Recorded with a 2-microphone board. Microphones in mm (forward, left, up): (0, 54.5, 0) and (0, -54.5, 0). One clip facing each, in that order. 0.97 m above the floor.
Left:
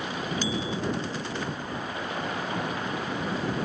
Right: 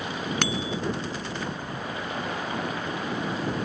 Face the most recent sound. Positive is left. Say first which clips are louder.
# right 2 dB
turn(degrees=-70)  # may be behind; listen again after turning